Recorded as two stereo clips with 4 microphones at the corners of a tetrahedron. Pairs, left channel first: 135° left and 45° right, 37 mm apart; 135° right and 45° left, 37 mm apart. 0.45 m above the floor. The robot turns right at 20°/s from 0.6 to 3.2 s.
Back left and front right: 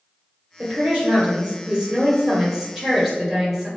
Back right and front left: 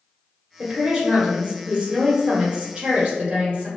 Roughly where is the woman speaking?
Ahead.